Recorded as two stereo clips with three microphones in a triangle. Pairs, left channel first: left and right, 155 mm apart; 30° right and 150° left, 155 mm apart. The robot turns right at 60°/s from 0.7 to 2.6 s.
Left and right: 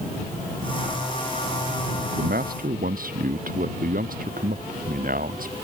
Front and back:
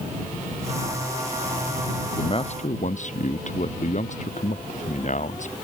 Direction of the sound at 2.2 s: 95° right.